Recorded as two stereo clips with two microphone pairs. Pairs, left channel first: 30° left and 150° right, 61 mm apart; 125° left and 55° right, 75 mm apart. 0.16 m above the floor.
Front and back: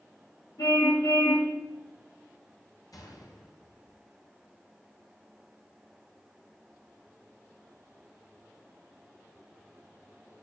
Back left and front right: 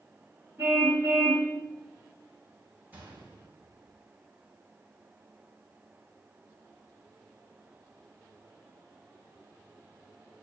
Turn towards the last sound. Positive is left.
turn(degrees=10)